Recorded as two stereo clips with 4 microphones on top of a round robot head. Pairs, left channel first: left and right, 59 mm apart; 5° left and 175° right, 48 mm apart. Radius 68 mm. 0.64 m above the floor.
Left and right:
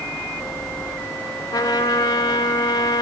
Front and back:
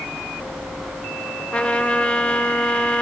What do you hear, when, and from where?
1.5 s a trumpet: 75° left, 0.8 m